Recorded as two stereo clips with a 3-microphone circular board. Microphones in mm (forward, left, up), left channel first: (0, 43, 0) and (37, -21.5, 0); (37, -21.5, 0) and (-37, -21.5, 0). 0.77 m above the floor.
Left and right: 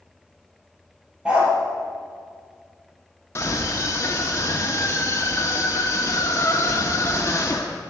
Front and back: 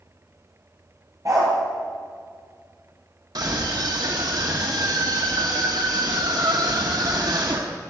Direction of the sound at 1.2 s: 135° right.